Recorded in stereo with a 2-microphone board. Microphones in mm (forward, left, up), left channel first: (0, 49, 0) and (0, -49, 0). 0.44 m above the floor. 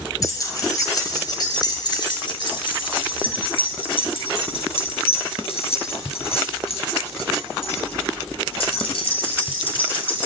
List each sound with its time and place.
0.2 s keys jangling: 35° left (ahead or behind), 5 m; by 10.3 s 60° left (ahead or behind), 6 m